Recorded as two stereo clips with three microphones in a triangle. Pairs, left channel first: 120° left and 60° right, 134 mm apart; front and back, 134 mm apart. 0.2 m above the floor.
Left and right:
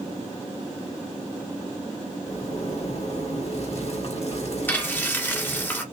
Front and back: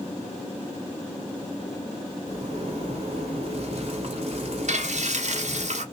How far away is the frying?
About 1.2 m.